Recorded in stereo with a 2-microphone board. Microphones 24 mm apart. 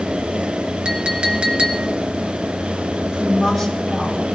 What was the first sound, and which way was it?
A clink, 55° right (ahead or behind).